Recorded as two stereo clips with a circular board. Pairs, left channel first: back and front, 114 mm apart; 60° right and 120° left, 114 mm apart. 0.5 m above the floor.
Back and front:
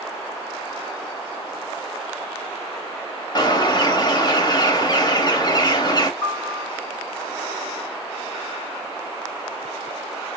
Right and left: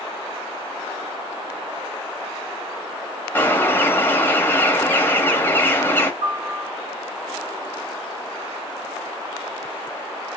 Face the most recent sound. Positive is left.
turn(degrees=110)